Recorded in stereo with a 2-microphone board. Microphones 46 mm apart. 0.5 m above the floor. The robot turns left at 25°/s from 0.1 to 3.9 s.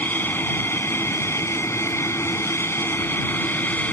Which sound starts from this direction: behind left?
An aircraft, at 0.0 s.